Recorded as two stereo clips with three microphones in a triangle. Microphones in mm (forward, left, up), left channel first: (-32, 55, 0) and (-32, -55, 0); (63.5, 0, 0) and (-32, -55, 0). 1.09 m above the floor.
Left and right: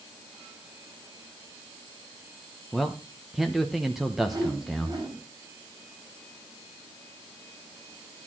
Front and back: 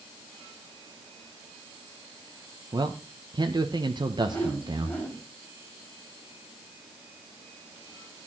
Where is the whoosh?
40° right, 9 m.